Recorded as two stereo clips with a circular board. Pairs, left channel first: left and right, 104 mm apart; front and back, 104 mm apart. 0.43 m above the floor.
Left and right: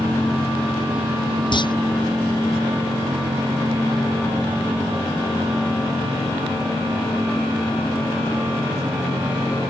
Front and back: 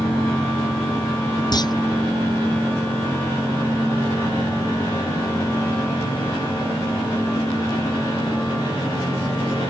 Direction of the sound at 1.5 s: 50° left.